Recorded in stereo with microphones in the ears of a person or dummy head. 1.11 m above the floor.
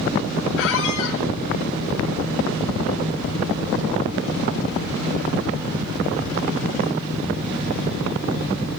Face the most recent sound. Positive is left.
turn(degrees=65)  # may be behind; listen again after turning